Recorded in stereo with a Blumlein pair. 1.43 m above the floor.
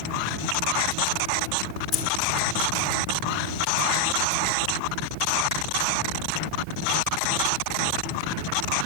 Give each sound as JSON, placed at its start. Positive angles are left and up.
{"t": 1.9, "sound": "keys jangling", "azimuth_deg": 30, "distance_m": 2.0}